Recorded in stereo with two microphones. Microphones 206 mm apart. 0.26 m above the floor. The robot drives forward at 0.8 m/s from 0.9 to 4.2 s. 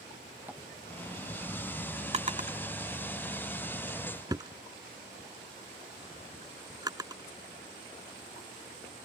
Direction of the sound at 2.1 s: 30° right (ahead or behind).